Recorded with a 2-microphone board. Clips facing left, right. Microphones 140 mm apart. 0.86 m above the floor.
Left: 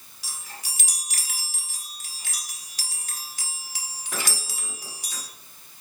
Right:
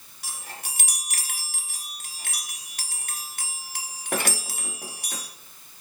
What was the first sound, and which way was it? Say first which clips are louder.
A chime: right 3 dB; 60° right (ahead or behind).